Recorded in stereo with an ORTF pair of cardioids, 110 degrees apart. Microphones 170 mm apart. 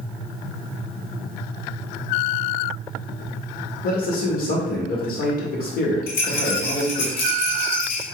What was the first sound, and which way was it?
A man speaking, 60° left.